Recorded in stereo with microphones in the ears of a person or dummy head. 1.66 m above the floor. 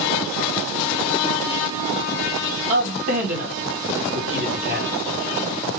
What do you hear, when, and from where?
2.7 s a man speaking: 45° right (ahead or behind), 2 m